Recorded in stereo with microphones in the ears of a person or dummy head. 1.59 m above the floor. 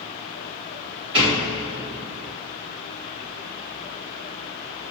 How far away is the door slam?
About 2 m.